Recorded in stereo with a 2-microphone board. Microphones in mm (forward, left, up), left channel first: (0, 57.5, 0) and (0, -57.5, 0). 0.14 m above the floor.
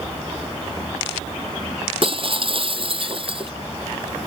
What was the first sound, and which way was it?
Breaking glass, 50° right (ahead or behind).